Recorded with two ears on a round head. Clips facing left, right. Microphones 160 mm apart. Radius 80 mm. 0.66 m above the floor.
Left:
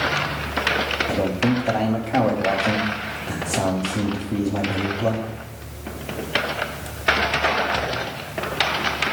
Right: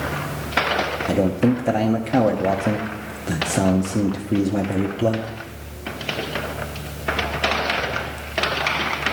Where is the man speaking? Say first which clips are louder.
Right 3 dB; 30° right (ahead or behind), 0.7 m.